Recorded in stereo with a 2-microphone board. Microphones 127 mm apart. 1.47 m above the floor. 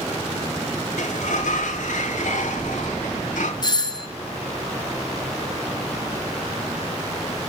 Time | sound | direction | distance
1.0 | a sliding door | 80° left | 0.9 m
3.6 | a doorbell | 35° left (ahead or behind) | 0.7 m